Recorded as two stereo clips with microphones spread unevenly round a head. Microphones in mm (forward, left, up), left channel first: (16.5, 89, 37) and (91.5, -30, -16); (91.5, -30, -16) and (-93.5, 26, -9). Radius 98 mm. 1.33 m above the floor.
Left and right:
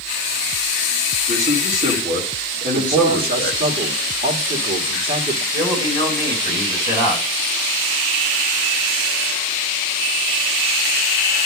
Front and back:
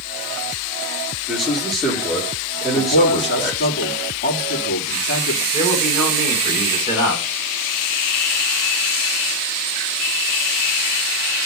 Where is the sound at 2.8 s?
65° right, 3 m.